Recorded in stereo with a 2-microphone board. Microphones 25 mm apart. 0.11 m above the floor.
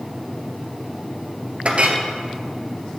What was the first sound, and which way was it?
A clink, 55° right (ahead or behind).